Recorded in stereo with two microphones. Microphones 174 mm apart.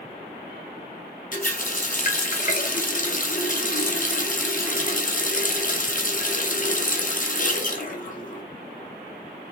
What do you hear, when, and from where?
1.3 s a running tap: 50° left (ahead or behind), 0.7 m